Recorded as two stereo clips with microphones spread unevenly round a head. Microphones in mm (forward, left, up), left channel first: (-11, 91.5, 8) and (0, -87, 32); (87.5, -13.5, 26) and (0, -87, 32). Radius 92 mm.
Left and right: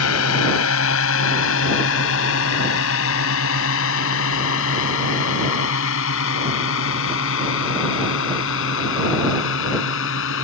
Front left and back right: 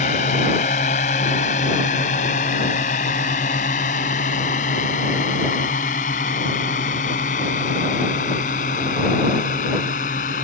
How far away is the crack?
No crack in this recording.